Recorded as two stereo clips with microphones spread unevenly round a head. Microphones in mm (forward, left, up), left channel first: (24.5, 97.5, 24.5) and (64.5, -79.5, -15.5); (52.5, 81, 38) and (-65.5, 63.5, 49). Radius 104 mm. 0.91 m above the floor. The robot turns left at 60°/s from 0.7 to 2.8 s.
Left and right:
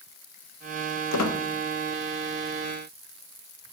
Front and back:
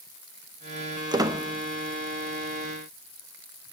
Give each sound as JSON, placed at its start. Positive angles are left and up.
{"t": 1.1, "sound": "a squeak", "azimuth_deg": 130, "distance_m": 1.0}